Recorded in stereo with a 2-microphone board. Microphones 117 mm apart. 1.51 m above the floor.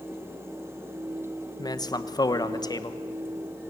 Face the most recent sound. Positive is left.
turn(degrees=35)  # may be behind; listen again after turning